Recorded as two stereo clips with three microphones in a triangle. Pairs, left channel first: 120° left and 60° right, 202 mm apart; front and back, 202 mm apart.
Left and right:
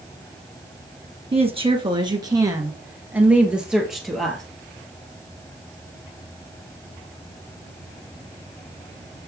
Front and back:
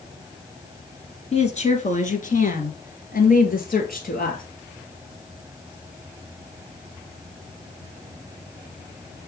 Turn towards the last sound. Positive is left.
turn(degrees=30)